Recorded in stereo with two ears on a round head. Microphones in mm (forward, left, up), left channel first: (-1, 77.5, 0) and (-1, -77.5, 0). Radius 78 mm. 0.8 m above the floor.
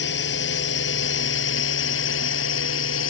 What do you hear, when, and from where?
0.0 s a drone: 75° left (ahead or behind); by 3.1 s 90° left